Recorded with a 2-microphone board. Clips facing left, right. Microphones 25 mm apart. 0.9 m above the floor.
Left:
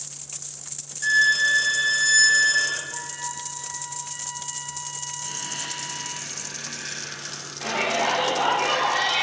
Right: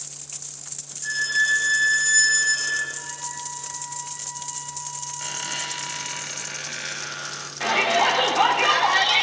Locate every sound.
1.0 s a violin: 50° left (ahead or behind), 3.5 m
2.9 s a flute: 75° left (ahead or behind), 5 m
5.2 s a squeak: 65° right (ahead or behind), 2 m
7.6 s a shout: 35° right (ahead or behind), 1.9 m